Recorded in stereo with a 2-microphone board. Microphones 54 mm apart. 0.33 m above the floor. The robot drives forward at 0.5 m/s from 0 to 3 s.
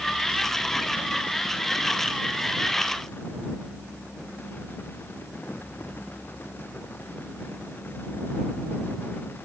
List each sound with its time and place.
Only background noise.